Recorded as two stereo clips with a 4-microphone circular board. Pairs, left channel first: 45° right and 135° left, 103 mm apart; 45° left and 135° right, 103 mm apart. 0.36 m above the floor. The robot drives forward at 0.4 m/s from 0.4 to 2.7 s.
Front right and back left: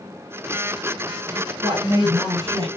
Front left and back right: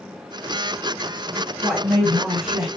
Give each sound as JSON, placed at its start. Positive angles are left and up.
{"t": 1.4, "sound": "a woman speaking", "azimuth_deg": 135, "distance_m": 1.7}